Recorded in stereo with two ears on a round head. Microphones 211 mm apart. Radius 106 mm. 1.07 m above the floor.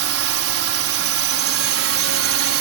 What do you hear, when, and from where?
0.0 s a drone: 65° right (ahead or behind)